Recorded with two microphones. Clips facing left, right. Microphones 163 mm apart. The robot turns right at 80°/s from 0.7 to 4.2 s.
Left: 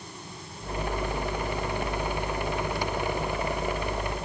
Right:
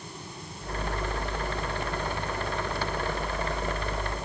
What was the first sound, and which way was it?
Only background noise.